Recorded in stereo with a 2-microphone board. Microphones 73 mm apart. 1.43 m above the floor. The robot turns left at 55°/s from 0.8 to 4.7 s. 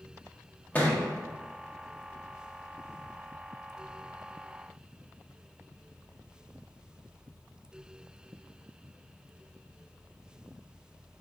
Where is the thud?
20° left (ahead or behind), 0.8 m; by 1.0 s 15° left (ahead or behind), 0.8 m.